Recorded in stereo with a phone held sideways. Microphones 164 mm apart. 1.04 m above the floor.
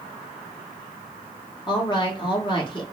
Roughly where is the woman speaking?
Left.